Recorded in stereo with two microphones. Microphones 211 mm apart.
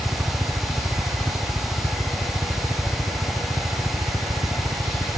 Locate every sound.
0.0 s a helicopter: 5° right (ahead or behind); by 5.2 s 15° right (ahead or behind)